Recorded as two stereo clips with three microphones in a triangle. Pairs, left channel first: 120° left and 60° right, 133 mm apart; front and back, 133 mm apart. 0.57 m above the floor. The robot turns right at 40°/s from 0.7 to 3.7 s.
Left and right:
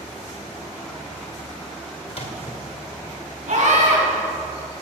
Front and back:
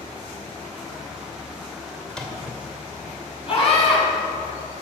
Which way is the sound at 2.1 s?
80° left.